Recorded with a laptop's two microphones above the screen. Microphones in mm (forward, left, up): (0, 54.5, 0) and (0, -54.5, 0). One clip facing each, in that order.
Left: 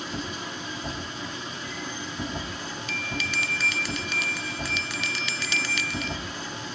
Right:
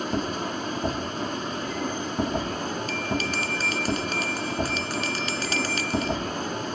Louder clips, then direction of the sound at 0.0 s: Right 6 dB; 50° right (ahead or behind).